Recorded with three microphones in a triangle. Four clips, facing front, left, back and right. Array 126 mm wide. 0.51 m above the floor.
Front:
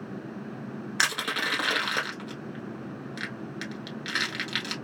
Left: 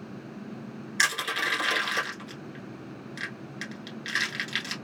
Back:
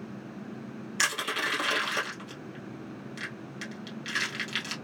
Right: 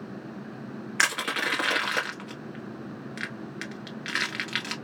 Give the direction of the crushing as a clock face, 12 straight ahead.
1 o'clock.